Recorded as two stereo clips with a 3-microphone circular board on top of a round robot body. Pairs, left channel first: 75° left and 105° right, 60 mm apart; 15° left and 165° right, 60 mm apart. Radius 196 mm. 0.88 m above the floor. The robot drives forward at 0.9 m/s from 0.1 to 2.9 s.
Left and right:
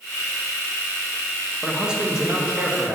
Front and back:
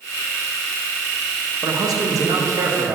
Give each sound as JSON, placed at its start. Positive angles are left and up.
{"t": 1.6, "sound": "a man speaking", "azimuth_deg": 175, "distance_m": 1.2}